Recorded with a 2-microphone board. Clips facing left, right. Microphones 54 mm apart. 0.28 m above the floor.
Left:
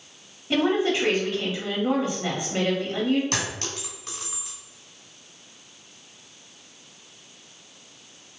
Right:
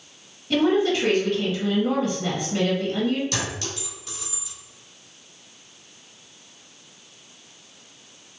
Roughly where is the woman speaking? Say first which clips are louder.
Right 2 dB; left.